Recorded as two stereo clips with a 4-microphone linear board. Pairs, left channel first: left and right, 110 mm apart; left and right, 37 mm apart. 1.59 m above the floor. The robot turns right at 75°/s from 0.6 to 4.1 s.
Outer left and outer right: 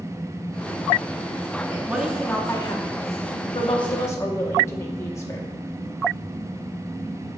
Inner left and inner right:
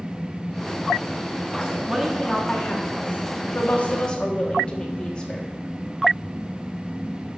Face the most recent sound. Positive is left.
turn(degrees=150)